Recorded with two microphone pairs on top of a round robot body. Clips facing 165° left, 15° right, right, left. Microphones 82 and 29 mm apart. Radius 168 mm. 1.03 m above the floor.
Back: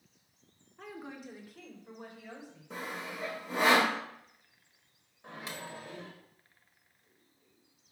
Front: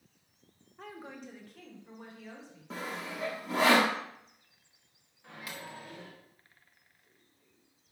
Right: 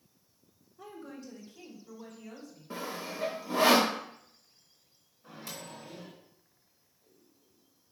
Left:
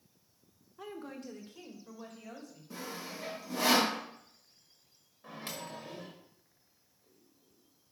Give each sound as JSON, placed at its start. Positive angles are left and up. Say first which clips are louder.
{"t": 0.8, "sound": "a woman speaking", "louder": "back 1 dB, left 1 dB", "azimuth_deg": 75, "distance_m": 1.2}
{"t": 2.7, "sound": "sawing", "louder": "front 1 dB, right 5 dB", "azimuth_deg": -40, "distance_m": 0.6}
{"t": 5.2, "sound": "a microwave", "louder": "back 2 dB, left 2 dB", "azimuth_deg": 105, "distance_m": 1.1}